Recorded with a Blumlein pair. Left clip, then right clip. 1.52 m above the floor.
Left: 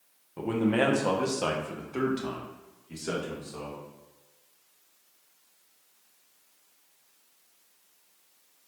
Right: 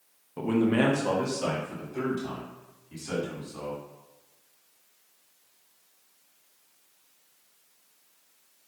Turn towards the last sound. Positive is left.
turn(degrees=50)